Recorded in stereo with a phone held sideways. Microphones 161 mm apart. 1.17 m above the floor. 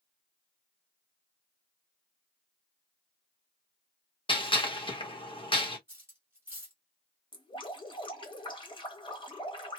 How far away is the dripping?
About 1.0 m.